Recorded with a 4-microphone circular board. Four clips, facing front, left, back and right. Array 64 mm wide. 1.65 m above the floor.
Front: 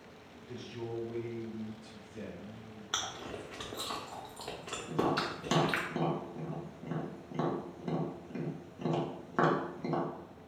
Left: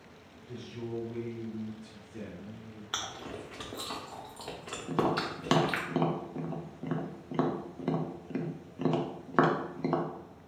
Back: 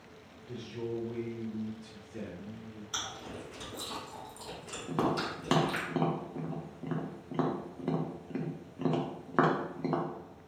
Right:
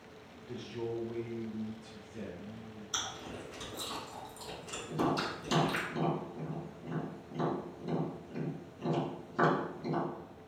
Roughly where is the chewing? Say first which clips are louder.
Left 2 dB, front 2 dB; ahead left.